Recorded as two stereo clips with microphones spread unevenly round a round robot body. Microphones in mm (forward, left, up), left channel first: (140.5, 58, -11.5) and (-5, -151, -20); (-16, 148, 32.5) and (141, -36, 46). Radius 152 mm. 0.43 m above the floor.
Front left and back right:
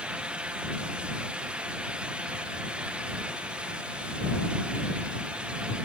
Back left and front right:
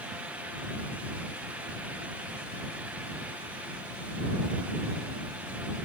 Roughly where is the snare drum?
I don't hear a snare drum.